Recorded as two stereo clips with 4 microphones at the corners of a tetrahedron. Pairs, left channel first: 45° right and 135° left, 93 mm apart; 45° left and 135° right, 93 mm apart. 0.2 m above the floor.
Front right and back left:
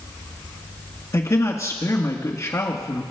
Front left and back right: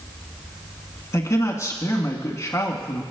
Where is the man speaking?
Straight ahead, 2 m.